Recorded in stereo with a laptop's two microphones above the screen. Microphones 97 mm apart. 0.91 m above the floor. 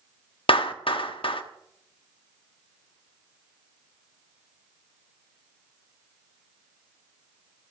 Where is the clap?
65° left (ahead or behind), 1.0 m.